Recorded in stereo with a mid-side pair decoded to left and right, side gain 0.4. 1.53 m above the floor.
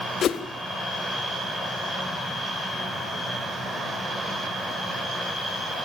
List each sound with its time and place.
0.2 s a whoosh: 65° left, 1.5 m